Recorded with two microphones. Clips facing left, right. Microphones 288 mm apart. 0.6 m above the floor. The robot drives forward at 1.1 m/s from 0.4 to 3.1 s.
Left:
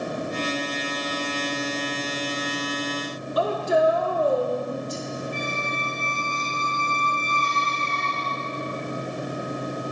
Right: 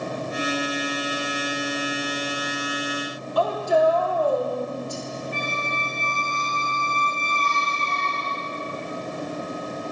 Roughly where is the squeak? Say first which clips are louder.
Left 1 dB; right.